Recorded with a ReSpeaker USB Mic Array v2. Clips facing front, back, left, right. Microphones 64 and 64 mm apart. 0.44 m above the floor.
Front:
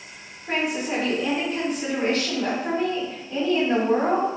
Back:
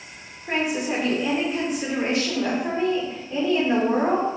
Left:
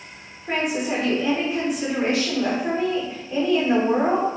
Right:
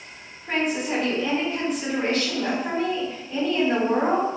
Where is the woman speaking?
140° left, 1.3 m.